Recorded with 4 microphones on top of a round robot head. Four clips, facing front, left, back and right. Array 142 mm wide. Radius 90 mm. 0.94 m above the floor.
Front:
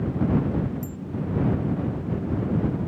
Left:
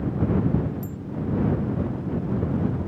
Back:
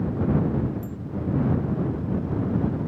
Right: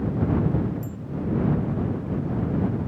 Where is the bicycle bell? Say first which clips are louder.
Left 1 dB, even; 40° left.